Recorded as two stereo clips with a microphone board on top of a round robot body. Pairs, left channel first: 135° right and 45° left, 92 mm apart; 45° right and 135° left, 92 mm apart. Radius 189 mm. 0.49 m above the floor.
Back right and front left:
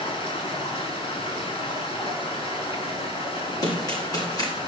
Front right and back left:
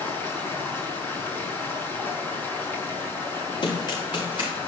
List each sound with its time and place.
0.0 s running water: 115° right, 5 m
3.6 s running footsteps: 85° right, 8.5 m